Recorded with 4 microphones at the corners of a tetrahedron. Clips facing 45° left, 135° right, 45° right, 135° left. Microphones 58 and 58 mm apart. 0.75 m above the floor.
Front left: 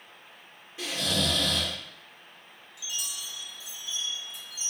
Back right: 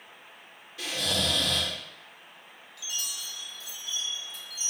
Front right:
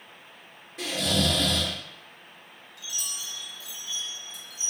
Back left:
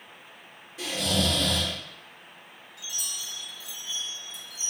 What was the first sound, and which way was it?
Snoring, 15° right.